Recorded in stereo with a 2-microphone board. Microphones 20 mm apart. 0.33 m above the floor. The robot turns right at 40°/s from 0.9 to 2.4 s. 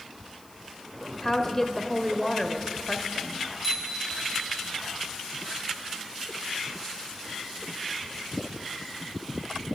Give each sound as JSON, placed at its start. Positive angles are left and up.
{"t": 1.2, "sound": "a woman speaking", "side_deg": 20, "distance_m": 0.9}
{"t": 3.6, "sound": "a bicycle bell", "side_deg": -5, "distance_m": 3.5}